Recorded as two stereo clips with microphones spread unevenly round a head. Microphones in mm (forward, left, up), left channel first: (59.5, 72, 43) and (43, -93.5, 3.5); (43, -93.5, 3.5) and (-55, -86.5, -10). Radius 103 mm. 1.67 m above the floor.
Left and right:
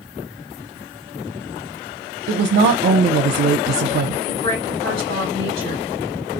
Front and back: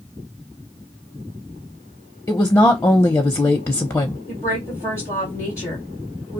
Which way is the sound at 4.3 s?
95° left.